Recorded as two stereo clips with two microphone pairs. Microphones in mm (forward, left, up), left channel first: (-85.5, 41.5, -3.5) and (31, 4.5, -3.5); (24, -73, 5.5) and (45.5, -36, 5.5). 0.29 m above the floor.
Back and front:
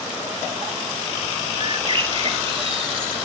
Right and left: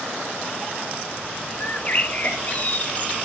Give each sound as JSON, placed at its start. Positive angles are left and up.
{"t": 1.6, "sound": "a bird", "azimuth_deg": -65, "distance_m": 1.1}